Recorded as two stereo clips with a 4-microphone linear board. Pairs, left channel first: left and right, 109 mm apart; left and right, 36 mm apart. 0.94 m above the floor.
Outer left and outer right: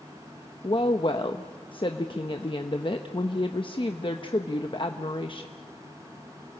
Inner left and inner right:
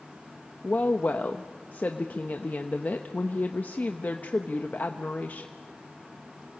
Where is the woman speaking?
50° left (ahead or behind), 1.0 m.